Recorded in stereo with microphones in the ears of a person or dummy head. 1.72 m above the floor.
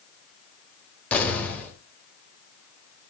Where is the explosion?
10° left (ahead or behind), 5.5 m.